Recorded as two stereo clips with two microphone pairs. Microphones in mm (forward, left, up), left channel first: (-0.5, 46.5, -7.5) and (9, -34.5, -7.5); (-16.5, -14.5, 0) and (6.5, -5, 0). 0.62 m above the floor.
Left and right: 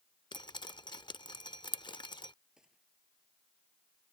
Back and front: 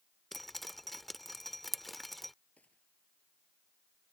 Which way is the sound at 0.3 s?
115° left.